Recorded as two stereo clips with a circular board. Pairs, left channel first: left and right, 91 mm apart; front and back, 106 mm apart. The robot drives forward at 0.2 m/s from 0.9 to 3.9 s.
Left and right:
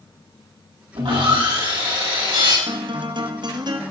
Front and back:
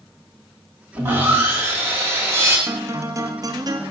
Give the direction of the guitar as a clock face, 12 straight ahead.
4 o'clock.